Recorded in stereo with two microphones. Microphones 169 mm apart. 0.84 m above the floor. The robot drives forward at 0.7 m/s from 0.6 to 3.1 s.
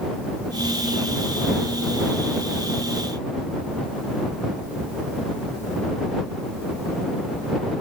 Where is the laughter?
No laughter in this recording.